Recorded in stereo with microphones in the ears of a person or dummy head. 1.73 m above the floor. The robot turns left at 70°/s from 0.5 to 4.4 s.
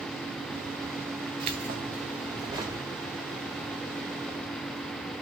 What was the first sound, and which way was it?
Keys jangling, 70° right.